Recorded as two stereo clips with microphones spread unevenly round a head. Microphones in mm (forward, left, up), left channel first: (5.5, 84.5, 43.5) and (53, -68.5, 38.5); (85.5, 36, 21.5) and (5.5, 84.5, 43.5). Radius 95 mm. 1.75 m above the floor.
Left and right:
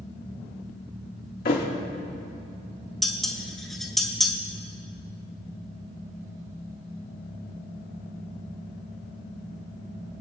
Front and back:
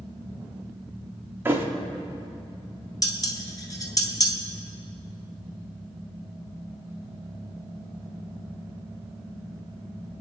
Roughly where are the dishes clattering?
Ahead.